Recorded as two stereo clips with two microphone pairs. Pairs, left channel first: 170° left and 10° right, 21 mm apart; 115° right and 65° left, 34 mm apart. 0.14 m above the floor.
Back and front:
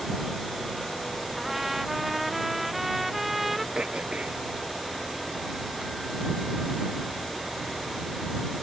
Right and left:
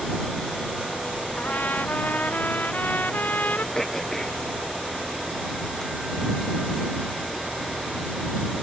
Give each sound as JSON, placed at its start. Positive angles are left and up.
{"t": 1.4, "sound": "a trumpet", "azimuth_deg": -95}
{"t": 3.8, "sound": "throat clearing", "azimuth_deg": -45}